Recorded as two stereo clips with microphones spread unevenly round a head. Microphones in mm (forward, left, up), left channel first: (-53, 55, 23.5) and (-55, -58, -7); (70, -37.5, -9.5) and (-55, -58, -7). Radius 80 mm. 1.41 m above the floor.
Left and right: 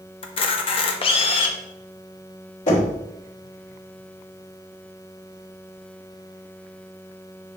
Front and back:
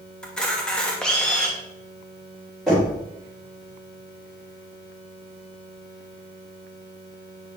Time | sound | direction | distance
0.2 | a camera shutter | 95° left | 1.0 m
2.7 | knocking | 100° left | 3.5 m